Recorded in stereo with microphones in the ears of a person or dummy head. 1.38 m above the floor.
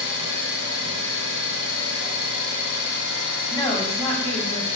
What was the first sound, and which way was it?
An engine running, 60° left (ahead or behind).